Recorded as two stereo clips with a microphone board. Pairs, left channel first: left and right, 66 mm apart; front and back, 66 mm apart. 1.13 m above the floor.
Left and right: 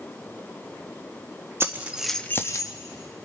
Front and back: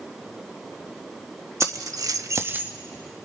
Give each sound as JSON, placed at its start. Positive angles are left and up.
{"t": 1.6, "sound": "keys jangling", "azimuth_deg": -140, "distance_m": 1.1}